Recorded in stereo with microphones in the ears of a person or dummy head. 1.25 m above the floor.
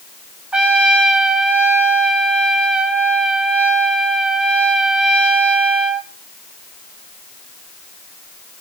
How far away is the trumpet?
About 1.5 m.